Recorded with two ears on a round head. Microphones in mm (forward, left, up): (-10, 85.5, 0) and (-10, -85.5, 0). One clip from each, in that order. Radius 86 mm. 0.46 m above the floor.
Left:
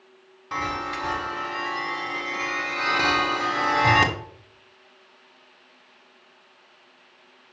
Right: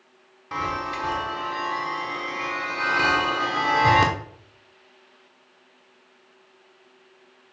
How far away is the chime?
About 1.1 m.